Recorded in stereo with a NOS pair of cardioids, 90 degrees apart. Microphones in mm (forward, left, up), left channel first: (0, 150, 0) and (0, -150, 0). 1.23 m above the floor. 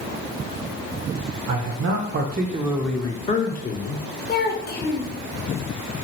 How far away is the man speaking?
About 0.8 m.